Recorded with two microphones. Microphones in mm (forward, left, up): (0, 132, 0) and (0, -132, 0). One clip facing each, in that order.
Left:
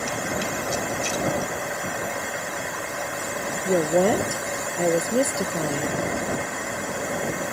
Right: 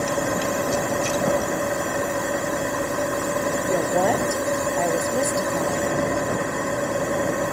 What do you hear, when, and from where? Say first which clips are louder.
0.0 s an engine running: right 5 dB; 55° right (ahead or behind)
3.6 s a woman speaking: left 4 dB; 30° left (ahead or behind)